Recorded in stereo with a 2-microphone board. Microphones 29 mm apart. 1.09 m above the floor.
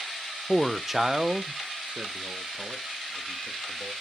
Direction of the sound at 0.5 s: 10° left (ahead or behind).